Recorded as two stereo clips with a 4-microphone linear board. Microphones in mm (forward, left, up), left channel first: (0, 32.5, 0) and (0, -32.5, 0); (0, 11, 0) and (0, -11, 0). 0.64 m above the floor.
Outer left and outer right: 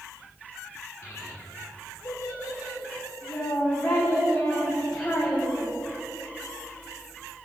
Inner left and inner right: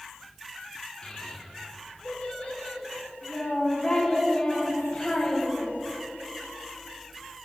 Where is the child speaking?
30° left (ahead or behind), 4 m; by 5.7 s 5° left (ahead or behind), 2.0 m.